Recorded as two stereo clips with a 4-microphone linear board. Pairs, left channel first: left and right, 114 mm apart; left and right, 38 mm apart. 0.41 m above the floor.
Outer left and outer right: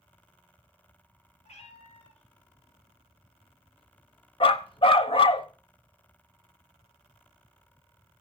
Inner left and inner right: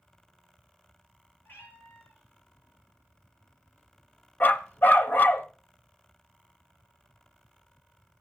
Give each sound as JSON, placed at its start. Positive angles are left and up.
{"t": 1.4, "sound": "a cat meowing", "side_deg": 75, "distance_m": 5.0}
{"t": 4.4, "sound": "a dog barking", "side_deg": 50, "distance_m": 0.8}